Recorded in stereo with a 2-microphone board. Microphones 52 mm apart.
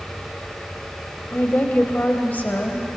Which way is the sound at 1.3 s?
35° left (ahead or behind).